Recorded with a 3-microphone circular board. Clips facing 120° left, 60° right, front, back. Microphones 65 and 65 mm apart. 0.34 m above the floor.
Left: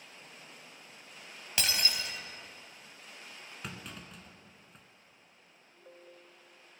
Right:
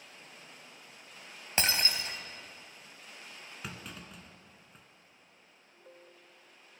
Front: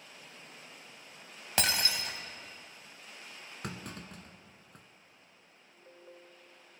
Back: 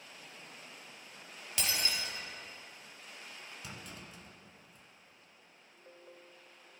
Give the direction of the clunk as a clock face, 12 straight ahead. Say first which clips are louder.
Even, front 9 dB; 11 o'clock.